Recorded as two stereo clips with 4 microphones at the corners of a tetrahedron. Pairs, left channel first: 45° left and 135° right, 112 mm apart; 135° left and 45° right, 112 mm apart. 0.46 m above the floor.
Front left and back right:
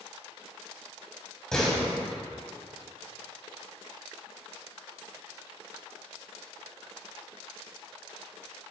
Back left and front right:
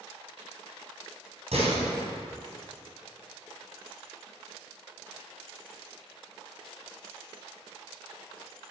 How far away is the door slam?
About 3 m.